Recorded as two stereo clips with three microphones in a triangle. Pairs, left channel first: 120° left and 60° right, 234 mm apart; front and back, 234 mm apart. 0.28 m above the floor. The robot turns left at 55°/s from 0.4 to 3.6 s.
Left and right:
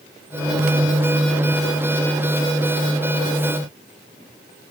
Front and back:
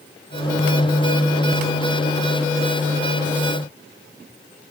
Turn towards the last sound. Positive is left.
No sound to turn to.